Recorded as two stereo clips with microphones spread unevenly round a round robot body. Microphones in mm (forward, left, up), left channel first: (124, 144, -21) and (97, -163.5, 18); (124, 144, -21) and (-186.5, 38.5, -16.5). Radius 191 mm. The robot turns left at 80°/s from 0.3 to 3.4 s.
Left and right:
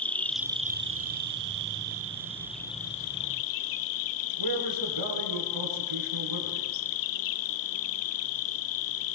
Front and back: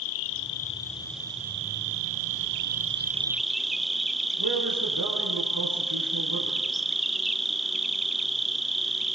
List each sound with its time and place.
0.0 s an insect: 5° right, 1.0 m; by 9.2 s 110° left, 1.0 m
4.4 s a man speaking: 105° right, 7 m